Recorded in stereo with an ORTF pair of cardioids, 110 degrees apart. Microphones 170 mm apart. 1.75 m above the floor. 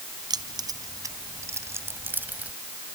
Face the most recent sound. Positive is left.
turn(degrees=-10)